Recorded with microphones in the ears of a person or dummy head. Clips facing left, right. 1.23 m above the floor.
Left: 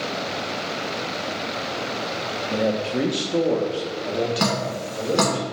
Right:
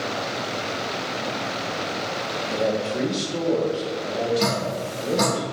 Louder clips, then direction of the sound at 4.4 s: Even; 75° left (ahead or behind).